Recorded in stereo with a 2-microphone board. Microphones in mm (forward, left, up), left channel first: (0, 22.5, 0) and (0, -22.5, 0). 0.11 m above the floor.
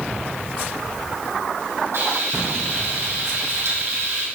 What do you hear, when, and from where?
1.9 s frying: 70° right (ahead or behind), 4.5 m